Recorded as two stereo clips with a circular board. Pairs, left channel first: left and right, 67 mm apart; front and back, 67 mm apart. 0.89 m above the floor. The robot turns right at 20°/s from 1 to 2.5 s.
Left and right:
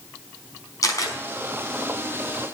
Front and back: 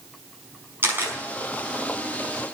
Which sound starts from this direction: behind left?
A camera shutter, at 0.8 s.